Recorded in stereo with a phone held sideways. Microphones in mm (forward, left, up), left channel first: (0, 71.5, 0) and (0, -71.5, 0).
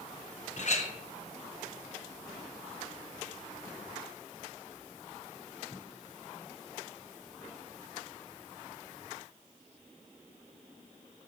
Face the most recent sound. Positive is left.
turn(degrees=55)  # may be behind; listen again after turning